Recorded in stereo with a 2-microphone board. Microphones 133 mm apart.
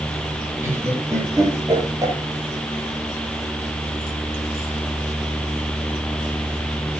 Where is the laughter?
20° right (ahead or behind), 7.5 m; by 2.1 s 25° right (ahead or behind), 7 m.